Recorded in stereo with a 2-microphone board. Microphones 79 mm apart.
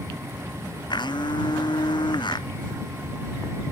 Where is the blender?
70° left (ahead or behind).